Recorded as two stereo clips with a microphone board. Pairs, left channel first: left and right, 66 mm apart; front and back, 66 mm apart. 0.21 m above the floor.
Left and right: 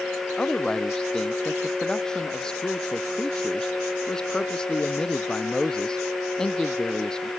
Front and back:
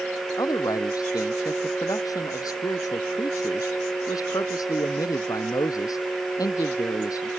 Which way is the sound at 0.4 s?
10° left.